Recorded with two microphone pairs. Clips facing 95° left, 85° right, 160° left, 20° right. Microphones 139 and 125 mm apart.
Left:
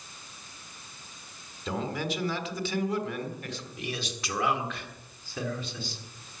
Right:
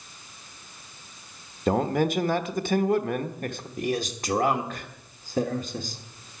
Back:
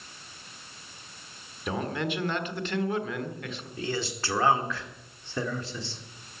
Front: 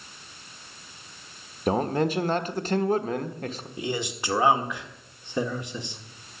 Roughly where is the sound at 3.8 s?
Right.